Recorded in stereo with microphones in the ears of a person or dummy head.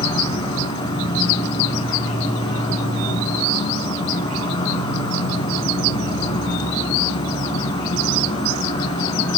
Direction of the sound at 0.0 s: 30° left (ahead or behind).